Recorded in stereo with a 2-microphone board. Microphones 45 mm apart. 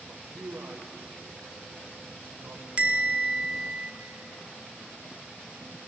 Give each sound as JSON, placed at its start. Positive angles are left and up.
{"t": 0.1, "sound": "a man speaking", "side_deg": -65, "distance_m": 1.9}
{"t": 2.8, "sound": "a bell", "side_deg": -25, "distance_m": 0.7}